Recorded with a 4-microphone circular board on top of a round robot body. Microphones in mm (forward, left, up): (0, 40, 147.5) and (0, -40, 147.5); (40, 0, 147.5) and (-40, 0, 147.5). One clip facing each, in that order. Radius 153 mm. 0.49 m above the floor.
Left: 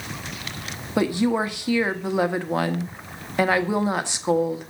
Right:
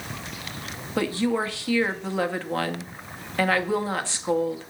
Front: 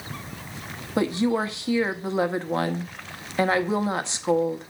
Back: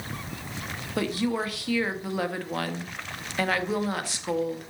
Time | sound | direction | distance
1.0 | a woman speaking | 35° left | 1.2 m